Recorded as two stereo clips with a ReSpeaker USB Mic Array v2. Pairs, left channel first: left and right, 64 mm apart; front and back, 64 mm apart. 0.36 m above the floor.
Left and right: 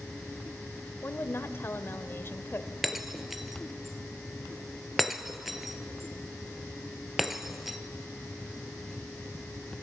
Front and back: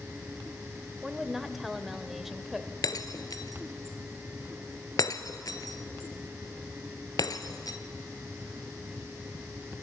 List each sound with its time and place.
1.0 s a woman speaking: 95° left, 1.0 m
2.8 s breaking glass: 5° right, 0.8 m